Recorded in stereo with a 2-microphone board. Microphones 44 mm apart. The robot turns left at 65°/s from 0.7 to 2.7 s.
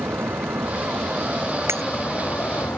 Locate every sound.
0.0 s a vehicle: 70° right (ahead or behind); by 2.8 s 65° left (ahead or behind)
1.7 s breaking glass: 85° right; by 1.8 s 90° right